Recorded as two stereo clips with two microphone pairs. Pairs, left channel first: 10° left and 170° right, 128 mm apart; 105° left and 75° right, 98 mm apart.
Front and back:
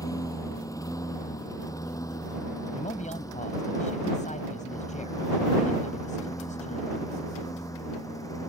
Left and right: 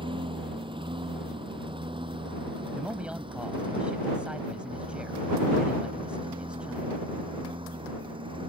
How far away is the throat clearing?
No throat clearing in this recording.